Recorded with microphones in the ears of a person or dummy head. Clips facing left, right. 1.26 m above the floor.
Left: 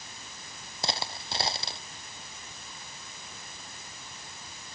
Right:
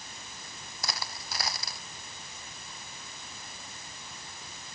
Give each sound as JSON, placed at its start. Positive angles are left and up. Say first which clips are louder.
{"t": 0.8, "sound": "a dropped coin", "louder": "left 5 dB", "side_deg": 30}